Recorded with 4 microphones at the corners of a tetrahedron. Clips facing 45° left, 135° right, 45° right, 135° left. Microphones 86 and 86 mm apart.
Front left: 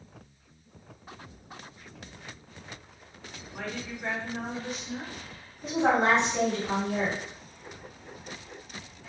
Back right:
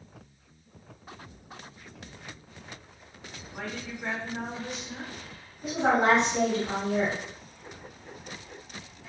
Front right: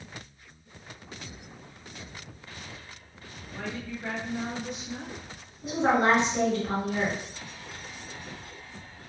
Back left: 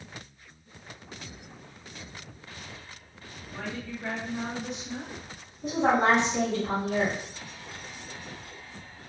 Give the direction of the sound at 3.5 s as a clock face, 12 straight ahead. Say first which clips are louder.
Front left 1 dB, even; 7 o'clock.